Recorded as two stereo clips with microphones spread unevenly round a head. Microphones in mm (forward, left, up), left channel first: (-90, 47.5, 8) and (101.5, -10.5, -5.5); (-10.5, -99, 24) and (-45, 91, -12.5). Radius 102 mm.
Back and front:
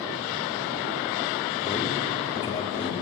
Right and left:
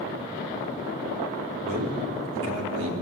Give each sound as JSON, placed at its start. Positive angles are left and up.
{"t": 1.6, "sound": "a man speaking", "azimuth_deg": 100, "distance_m": 3.5}